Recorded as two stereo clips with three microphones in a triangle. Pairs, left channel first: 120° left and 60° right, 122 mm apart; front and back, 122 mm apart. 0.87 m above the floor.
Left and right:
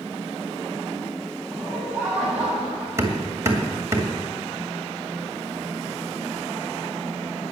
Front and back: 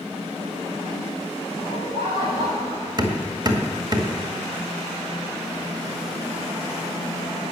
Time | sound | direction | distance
1.5 | laughter | 140° right | 7.5 m
3.0 | hammering | 125° right | 2.0 m